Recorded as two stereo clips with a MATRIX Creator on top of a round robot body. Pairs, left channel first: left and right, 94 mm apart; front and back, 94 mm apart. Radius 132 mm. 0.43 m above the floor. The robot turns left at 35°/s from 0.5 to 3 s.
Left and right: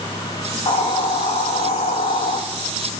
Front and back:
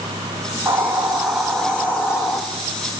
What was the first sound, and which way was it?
A hiss, 115° left.